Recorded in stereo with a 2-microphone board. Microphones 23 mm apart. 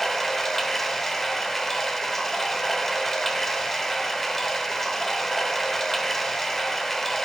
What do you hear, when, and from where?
0.0 s running water: 15° left (ahead or behind), 0.8 m